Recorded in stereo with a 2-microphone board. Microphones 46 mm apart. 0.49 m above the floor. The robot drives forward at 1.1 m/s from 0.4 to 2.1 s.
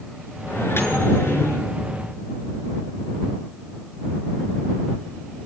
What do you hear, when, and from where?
0.5 s a microwave: 60° left (ahead or behind), 7 m; by 1.6 s 70° left (ahead or behind), 6.5 m